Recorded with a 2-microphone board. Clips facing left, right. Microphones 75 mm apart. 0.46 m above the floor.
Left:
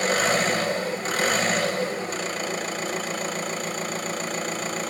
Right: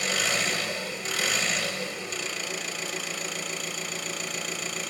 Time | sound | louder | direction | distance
0.0 | an engine running | left 7 dB | 40° left (ahead or behind) | 0.7 m